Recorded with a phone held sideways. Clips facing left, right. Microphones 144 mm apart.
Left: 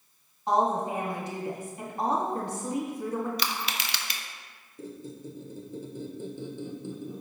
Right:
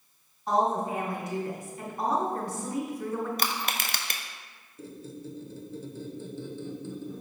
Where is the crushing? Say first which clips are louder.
Right 2 dB; 50° right (ahead or behind), 0.5 m.